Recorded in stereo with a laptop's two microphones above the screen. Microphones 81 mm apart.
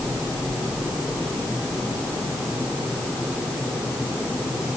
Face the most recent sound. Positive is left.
No sound to turn to.